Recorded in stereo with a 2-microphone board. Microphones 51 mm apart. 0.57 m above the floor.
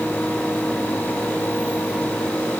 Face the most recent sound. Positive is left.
No sound to turn to.